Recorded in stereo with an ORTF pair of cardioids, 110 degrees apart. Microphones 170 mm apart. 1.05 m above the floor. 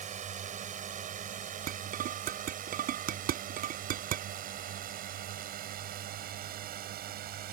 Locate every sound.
0.0 s a drone: 45° right; by 7.5 s 65° right
1.7 s dishes clattering: 60° right